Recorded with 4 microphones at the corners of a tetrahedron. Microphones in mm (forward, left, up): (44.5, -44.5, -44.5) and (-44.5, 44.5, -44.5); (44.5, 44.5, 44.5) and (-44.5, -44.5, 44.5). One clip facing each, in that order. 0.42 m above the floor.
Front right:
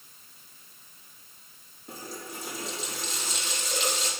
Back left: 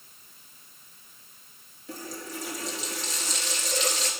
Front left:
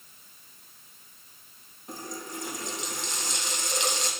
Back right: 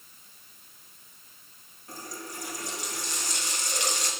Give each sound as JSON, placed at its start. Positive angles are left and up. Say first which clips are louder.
{"t": 1.9, "sound": "a running tap", "louder": "back left 2 dB, front left 3 dB", "azimuth_deg": -20, "distance_m": 3.0}